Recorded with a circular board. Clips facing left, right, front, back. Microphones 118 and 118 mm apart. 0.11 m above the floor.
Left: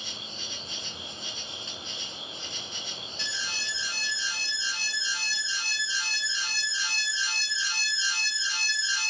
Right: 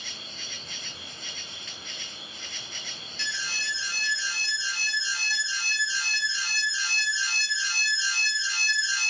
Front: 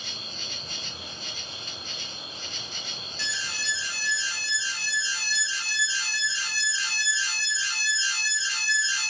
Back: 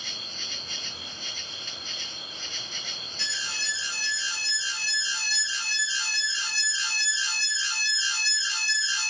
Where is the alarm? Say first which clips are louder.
Right 3 dB, front 2 dB; 150° left, 2.5 m.